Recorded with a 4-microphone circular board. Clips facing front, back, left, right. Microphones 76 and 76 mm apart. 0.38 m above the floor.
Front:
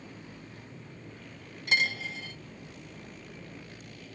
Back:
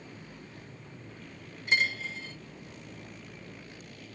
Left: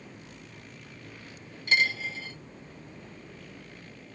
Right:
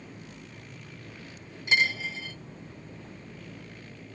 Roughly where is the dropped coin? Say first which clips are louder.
Even, even; ahead.